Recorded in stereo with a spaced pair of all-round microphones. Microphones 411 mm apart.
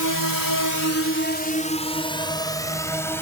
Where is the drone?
45° left (ahead or behind); by 3.2 s 5° left (ahead or behind).